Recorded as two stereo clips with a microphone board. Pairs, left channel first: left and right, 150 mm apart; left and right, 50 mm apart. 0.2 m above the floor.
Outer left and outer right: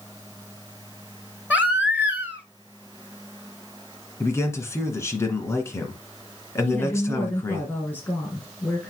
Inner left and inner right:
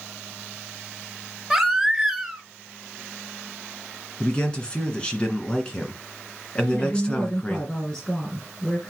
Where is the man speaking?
15° left (ahead or behind), 1.9 m.